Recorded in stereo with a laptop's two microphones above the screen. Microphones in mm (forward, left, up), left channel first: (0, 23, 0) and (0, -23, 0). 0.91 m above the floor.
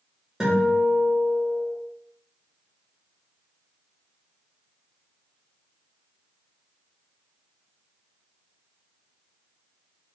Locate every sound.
0.4 s a guitar: 15° right (ahead or behind), 1.0 m